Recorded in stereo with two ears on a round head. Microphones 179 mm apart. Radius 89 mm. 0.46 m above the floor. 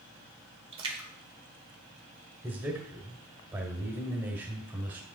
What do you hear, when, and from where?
0.7 s a splash: 25° right (ahead or behind), 1.4 m
2.4 s a man speaking: 15° right (ahead or behind), 1.4 m